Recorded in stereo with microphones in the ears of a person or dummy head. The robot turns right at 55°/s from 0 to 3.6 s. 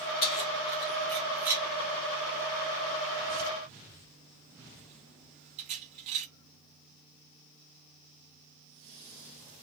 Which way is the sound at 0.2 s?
45° left (ahead or behind).